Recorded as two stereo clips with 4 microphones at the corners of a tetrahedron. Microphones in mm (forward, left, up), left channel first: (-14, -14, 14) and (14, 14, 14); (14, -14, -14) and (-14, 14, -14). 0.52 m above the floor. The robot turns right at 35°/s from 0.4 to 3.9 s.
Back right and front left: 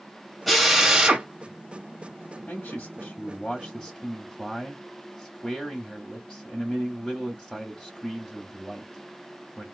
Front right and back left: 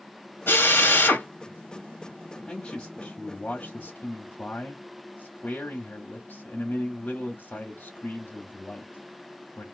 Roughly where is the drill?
Ahead right.